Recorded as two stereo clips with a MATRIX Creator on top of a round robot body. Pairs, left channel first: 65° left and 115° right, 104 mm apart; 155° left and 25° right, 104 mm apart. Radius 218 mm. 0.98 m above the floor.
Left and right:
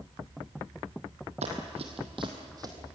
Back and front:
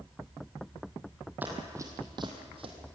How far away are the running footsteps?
About 1.7 m.